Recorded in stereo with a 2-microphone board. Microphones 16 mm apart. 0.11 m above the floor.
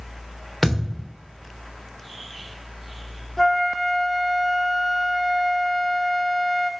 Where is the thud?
10° left (ahead or behind), 3 m.